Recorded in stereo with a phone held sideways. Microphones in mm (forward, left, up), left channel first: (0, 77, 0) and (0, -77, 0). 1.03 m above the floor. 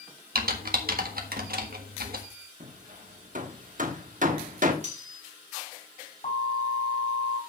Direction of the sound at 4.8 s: 50° right (ahead or behind).